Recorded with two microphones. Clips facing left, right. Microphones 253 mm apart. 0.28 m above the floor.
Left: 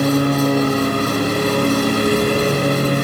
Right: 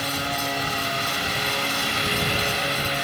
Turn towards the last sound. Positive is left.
turn(degrees=55)  # may be behind; listen again after turning